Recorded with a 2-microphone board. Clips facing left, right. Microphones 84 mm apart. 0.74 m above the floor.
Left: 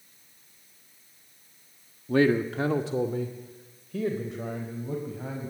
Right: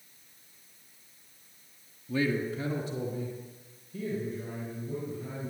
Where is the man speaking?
55° left (ahead or behind), 1.1 m; by 5.5 s 80° left, 4.5 m.